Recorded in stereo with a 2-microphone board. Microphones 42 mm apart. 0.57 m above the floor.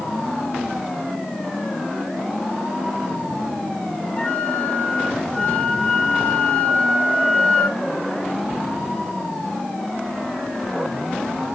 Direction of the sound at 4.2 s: 20° left (ahead or behind).